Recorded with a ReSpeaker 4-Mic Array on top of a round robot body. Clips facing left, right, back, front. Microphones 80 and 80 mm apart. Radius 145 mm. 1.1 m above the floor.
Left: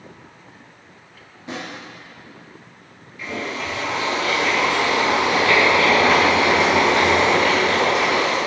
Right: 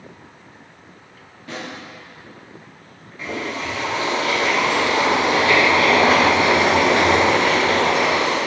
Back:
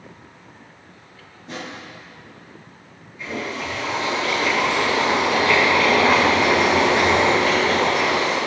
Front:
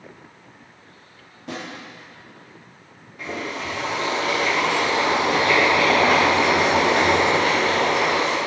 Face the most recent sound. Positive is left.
turn(degrees=-35)